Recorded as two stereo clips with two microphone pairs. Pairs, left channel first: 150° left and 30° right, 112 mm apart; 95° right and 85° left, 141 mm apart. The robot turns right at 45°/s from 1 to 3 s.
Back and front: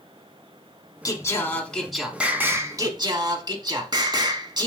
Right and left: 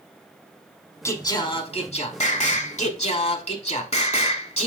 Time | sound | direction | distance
1.1 | singing | 160° right | 0.7 m